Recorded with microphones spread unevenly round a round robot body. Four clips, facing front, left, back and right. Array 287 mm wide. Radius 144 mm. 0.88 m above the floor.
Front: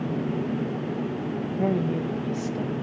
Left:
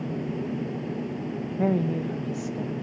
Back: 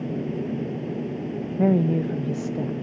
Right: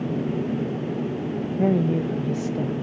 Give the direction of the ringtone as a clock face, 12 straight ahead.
I don't hear a ringtone.